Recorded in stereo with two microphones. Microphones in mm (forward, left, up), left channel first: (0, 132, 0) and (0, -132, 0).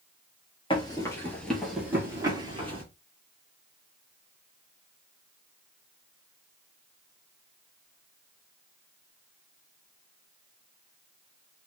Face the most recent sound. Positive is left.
turn(degrees=-25)  # may be behind; listen again after turning